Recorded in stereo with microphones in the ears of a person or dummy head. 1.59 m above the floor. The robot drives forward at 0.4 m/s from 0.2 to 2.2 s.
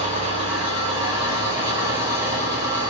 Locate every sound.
0.0 s an engine running: 35° right (ahead or behind), 0.9 m; by 2.9 s 20° right (ahead or behind), 1.6 m